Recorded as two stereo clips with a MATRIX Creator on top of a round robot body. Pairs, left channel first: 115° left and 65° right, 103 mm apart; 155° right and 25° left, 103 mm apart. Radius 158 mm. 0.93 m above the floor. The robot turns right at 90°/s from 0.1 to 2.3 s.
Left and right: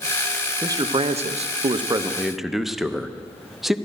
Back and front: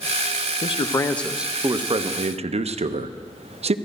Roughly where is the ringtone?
I don't hear a ringtone.